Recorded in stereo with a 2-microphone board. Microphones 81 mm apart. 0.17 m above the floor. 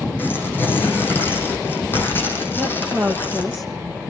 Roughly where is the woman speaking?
Centre.